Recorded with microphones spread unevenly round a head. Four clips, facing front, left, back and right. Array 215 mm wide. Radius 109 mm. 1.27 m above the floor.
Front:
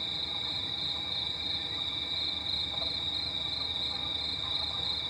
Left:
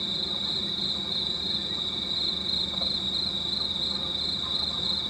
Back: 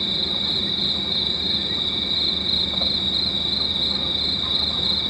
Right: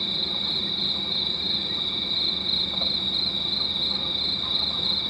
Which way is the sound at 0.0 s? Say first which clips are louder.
Right 2 dB, back 12 dB; 175° left.